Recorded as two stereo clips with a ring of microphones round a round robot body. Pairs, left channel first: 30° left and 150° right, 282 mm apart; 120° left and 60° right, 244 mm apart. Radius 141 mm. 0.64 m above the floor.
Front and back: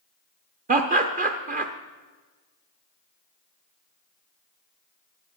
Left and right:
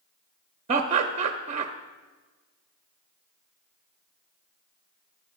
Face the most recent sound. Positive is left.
turn(degrees=-105)